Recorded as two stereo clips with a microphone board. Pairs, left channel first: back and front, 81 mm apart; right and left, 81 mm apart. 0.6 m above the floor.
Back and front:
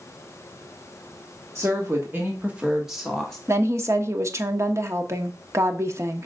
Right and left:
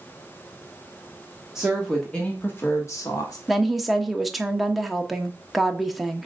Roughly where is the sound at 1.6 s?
Ahead.